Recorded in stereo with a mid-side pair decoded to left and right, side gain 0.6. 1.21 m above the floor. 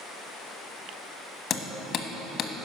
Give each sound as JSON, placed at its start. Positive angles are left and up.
{"t": 1.5, "sound": "hammering", "azimuth_deg": 45, "distance_m": 1.1}